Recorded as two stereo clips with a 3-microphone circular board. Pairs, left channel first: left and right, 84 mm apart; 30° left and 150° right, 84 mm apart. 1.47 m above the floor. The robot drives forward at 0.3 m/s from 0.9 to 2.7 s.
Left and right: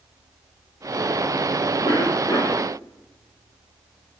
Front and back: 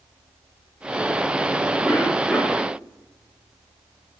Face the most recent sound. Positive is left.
turn(degrees=130)